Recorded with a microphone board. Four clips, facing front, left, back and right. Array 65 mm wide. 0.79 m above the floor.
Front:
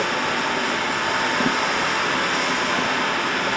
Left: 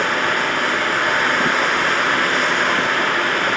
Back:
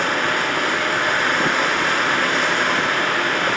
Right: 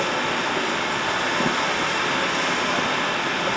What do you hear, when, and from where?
0.0 s running water: 120° left, 3 m